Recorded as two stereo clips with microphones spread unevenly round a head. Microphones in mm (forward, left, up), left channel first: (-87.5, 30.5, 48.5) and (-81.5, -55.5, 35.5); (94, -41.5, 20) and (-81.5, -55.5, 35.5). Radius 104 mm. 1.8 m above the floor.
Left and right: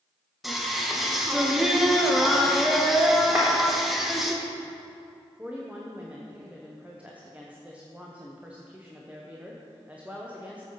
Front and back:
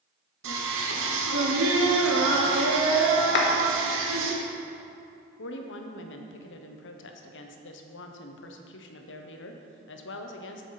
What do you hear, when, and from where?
0.4 s singing: 175° right, 1.3 m
3.4 s a clap: straight ahead, 1.1 m
5.4 s a woman speaking: 5° left, 0.9 m